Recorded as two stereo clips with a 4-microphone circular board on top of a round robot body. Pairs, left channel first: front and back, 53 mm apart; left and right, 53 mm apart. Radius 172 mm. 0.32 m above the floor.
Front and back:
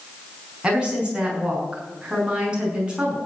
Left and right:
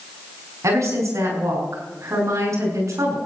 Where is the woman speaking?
110° right, 6 m.